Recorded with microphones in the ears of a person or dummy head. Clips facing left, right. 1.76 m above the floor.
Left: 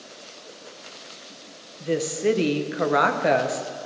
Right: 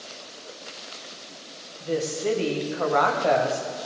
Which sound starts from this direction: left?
A woman speaking, at 1.8 s.